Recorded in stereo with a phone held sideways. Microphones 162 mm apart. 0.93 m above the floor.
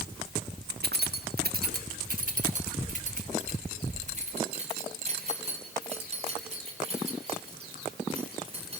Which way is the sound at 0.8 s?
85° right.